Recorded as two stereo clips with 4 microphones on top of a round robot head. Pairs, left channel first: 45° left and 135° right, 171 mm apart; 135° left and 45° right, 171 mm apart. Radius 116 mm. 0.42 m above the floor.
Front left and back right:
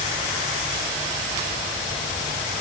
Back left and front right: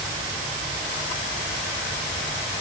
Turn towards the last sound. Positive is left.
No sound to turn to.